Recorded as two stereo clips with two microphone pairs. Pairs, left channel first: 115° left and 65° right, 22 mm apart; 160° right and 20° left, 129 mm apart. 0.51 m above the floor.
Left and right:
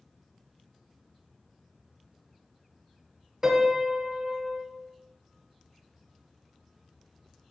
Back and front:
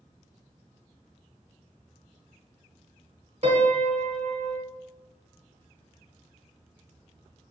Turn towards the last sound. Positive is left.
turn(degrees=-5)